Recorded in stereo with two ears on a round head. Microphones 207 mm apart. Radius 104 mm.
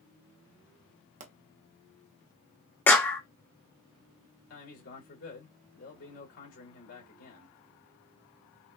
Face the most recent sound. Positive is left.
turn(degrees=65)  # may be behind; listen again after turning